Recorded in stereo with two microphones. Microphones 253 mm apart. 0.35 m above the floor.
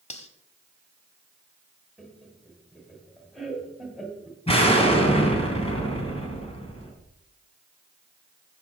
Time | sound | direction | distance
0.1 | cutlery clinking | 25° left (ahead or behind) | 1.1 m
2.0 | laughter | centre (ahead or behind) | 1.6 m
4.5 | an explosion | 25° left (ahead or behind) | 2.5 m